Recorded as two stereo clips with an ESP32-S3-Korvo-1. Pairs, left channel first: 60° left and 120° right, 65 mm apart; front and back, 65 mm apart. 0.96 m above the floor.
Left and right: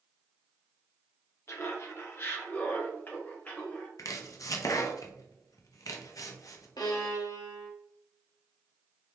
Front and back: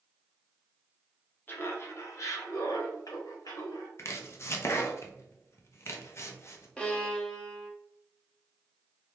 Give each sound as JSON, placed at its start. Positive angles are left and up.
{"t": 1.5, "sound": "laughter", "azimuth_deg": 45, "distance_m": 1.0}
{"t": 4.0, "sound": "chopping", "azimuth_deg": 40, "distance_m": 0.7}
{"t": 6.8, "sound": "a violin", "azimuth_deg": 75, "distance_m": 1.0}